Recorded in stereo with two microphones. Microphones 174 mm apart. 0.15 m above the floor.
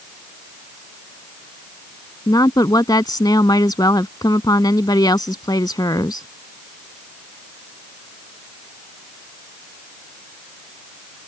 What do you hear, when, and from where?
2.3 s a woman speaking: 20° left (ahead or behind)